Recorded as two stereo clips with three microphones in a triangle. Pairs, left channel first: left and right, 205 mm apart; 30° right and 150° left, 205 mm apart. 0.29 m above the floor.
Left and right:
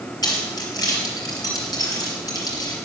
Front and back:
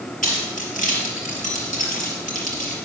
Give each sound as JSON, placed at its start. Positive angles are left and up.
{"t": 0.2, "sound": "keys jangling", "azimuth_deg": 20, "distance_m": 4.0}